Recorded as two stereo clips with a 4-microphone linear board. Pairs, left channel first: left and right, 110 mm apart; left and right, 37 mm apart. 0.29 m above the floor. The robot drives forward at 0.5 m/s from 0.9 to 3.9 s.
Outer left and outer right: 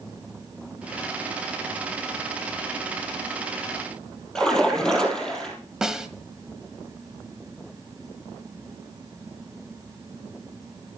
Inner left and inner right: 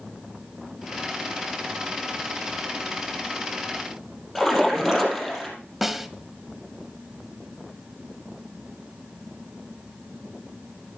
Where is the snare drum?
5° right (ahead or behind), 1.2 m.